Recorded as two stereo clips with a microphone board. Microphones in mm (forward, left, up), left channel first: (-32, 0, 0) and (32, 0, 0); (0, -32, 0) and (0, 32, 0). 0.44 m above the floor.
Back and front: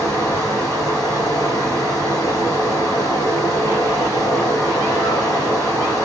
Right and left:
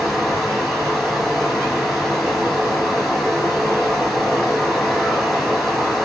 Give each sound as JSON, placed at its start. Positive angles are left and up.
{"t": 0.0, "sound": "running water", "azimuth_deg": -175, "distance_m": 1.3}